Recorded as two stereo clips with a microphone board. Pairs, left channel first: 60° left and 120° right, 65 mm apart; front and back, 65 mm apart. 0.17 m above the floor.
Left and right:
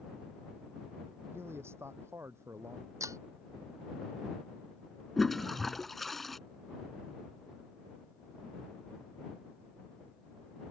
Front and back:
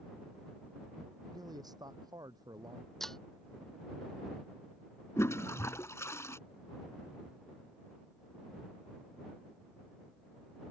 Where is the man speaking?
170° right; by 2.9 s 165° right.